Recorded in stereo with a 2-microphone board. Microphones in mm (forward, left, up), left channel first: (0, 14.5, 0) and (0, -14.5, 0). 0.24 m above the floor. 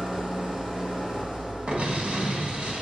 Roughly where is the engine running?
Centre.